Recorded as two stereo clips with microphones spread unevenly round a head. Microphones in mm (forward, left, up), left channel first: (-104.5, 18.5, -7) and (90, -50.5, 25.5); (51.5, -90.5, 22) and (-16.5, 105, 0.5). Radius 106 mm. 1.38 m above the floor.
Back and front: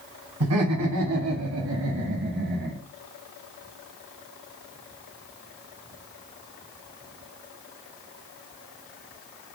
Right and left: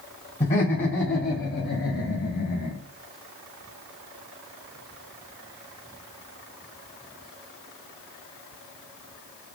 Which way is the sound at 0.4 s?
15° right.